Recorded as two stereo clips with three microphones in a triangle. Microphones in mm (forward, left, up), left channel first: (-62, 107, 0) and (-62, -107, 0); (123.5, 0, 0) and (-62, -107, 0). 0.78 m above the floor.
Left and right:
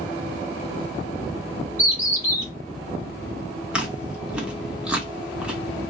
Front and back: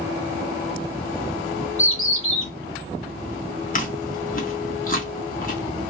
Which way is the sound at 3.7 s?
5° right.